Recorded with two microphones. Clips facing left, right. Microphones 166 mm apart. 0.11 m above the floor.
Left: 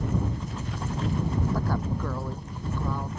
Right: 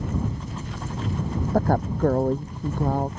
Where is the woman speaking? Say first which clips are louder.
Right 7 dB; 50° right (ahead or behind).